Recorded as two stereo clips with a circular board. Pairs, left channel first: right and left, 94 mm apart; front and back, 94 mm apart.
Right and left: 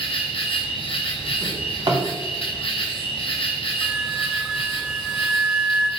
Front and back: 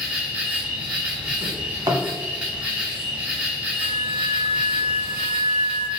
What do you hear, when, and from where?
0.0 s an insect: 105° right, 1.1 m
1.4 s a drawer: 130° left, 1.3 m
3.8 s a flute: 5° left, 0.7 m